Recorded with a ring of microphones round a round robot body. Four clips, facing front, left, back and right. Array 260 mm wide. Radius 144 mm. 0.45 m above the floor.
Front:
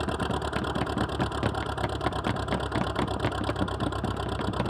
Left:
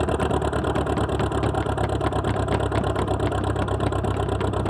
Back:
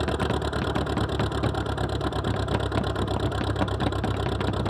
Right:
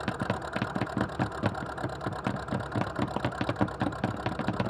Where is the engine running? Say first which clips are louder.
Left 10 dB, back 3 dB; 100° left.